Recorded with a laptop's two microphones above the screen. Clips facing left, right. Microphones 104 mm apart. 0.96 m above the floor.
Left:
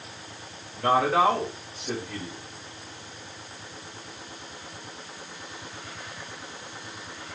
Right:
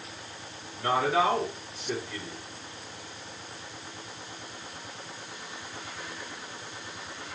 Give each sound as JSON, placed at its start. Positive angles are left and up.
{"t": 0.8, "sound": "a man speaking", "side_deg": 60, "distance_m": 4.5}